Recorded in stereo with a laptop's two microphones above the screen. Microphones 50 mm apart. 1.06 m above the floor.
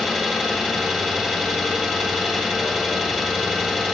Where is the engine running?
5° right (ahead or behind), 3.5 m.